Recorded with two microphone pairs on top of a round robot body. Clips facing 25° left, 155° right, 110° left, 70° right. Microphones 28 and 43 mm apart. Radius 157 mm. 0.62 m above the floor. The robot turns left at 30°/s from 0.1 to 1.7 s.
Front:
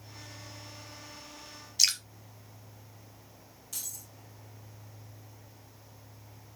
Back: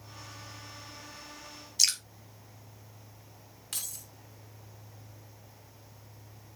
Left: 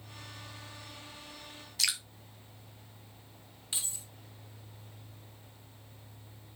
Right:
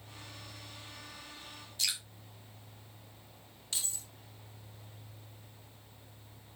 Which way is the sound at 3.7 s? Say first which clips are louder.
Back 2 dB, even; 175° right.